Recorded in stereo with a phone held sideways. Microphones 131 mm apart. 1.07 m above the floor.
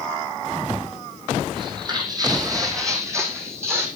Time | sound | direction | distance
1.6 | footsteps | 35° right (ahead or behind) | 3 m